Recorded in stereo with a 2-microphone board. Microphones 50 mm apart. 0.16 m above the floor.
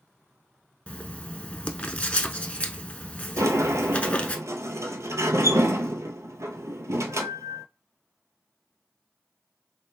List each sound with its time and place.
0.9 s writing: 25° left (ahead or behind), 0.6 m
3.4 s a sliding door: 75° right (ahead or behind), 0.6 m